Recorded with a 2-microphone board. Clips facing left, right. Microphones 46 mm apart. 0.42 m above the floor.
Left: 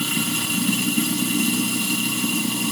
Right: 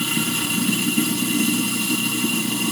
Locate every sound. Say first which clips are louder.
0.0 s running water: right 1 dB; centre (ahead or behind), 3.5 m